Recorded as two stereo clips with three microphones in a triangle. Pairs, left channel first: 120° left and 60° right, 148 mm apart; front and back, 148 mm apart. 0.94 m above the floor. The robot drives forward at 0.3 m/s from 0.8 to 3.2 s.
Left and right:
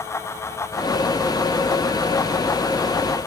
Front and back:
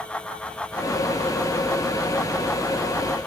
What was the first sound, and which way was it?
Only background noise.